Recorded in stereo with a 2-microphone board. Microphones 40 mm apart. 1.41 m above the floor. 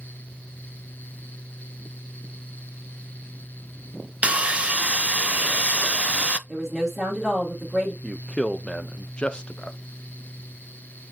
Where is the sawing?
30° right (ahead or behind), 0.6 m.